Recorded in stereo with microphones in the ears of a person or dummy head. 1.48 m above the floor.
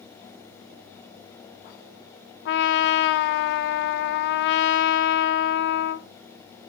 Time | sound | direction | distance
2.5 | a trumpet | 65° left (ahead or behind) | 0.5 m